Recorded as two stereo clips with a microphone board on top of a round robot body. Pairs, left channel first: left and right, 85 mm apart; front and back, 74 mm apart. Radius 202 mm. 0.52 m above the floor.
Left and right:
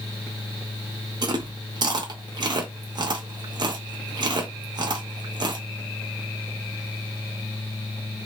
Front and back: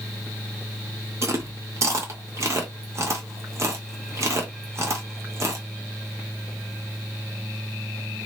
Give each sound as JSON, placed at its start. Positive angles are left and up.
{"t": 1.2, "sound": "chewing", "azimuth_deg": -130, "distance_m": 0.7}